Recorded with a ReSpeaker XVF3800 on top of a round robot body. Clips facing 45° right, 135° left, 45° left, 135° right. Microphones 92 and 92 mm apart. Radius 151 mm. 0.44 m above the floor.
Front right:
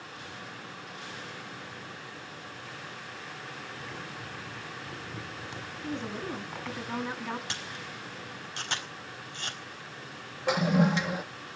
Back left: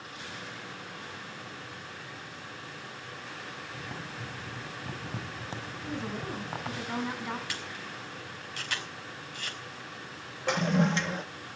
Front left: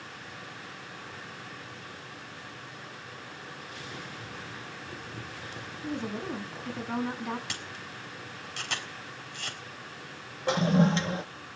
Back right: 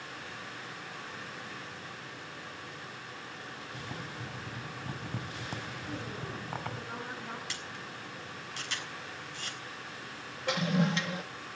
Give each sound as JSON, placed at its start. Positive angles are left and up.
{"t": 3.7, "sound": "boiling", "azimuth_deg": -170, "distance_m": 4.0}
{"t": 5.8, "sound": "a woman speaking", "azimuth_deg": 50, "distance_m": 6.0}
{"t": 7.5, "sound": "a camera shutter", "azimuth_deg": 20, "distance_m": 5.0}
{"t": 10.5, "sound": "a toilet flushing", "azimuth_deg": 30, "distance_m": 0.7}